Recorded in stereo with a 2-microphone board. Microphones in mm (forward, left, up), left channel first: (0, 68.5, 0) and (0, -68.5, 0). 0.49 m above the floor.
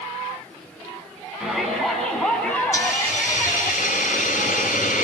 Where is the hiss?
70° left (ahead or behind), 5 m.